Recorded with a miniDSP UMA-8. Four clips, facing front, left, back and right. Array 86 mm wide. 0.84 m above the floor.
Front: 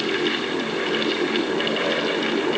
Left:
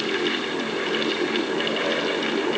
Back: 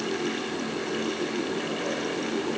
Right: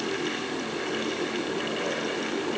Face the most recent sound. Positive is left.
No sound to turn to.